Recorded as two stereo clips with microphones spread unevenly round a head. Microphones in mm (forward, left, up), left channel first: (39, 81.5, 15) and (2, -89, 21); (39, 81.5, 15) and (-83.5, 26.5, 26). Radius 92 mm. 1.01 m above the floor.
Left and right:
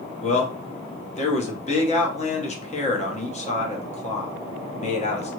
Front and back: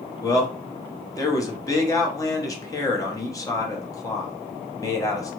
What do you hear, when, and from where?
0.2 s a man speaking: 65° left, 0.9 m